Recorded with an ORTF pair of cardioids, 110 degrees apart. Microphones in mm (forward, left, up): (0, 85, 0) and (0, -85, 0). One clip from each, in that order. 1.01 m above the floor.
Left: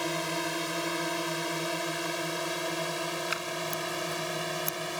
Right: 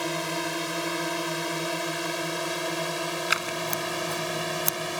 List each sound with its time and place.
0.0 s a drone: 15° right; by 5.0 s 25° right
3.3 s scissors: 50° right